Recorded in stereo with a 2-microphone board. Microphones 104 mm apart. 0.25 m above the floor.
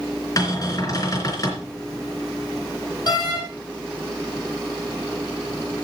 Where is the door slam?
45° left (ahead or behind), 5 m.